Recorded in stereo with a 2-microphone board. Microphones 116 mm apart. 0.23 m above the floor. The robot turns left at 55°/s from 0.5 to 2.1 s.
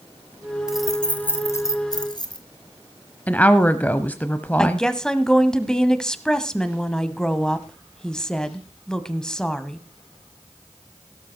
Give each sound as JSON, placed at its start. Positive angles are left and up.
{"t": 0.7, "sound": "keys jangling", "side_deg": -5, "distance_m": 1.3}
{"t": 3.3, "sound": "a woman speaking", "side_deg": 15, "distance_m": 0.9}
{"t": 4.6, "sound": "a woman speaking", "side_deg": 5, "distance_m": 1.3}